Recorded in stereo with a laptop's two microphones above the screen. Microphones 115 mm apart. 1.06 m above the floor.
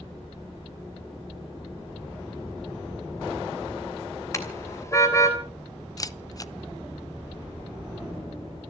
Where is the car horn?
25° left (ahead or behind), 3 m.